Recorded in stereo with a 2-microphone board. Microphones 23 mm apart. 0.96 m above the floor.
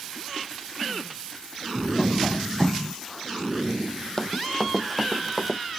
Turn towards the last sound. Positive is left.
turn(degrees=-5)  # may be behind; listen again after turning